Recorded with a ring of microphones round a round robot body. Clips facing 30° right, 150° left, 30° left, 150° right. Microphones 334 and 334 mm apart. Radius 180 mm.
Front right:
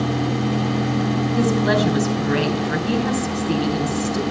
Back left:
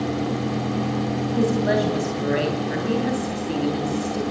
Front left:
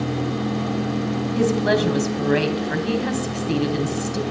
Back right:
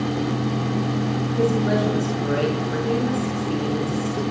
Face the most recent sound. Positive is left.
turn(degrees=40)